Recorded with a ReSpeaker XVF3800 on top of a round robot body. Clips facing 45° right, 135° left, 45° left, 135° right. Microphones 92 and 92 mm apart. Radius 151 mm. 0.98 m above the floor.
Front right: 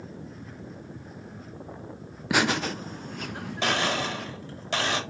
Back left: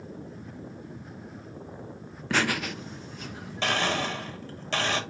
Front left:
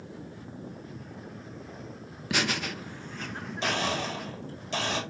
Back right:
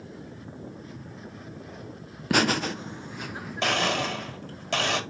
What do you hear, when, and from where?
2.3 s laughter: 120° right, 0.5 m; by 4.3 s 40° right, 1.1 m
3.6 s a blender: 120° right, 1.4 m